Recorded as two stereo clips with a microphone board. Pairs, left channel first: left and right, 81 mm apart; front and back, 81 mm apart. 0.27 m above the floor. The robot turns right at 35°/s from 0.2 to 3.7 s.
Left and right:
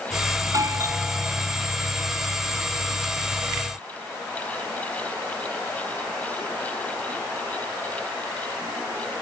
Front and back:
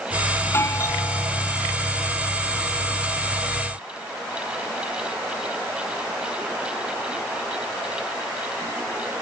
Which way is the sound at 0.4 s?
60° right.